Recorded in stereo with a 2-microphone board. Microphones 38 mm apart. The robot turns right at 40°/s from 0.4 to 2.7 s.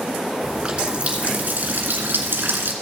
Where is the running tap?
170° right, 1.7 m; by 2.7 s 80° right, 1.7 m.